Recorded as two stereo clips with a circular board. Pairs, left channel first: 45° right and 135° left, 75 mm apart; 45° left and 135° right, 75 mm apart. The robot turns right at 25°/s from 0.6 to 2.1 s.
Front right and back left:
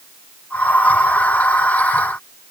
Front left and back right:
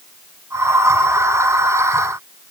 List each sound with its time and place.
Only background noise.